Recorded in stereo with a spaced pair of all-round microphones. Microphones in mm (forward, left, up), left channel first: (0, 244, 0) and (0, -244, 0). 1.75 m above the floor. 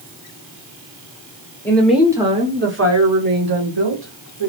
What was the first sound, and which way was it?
A woman speaking, 5° left (ahead or behind).